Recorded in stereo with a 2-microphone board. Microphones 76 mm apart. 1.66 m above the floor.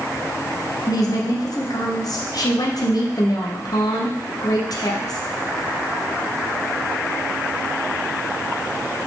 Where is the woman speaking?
60° left (ahead or behind), 0.9 m.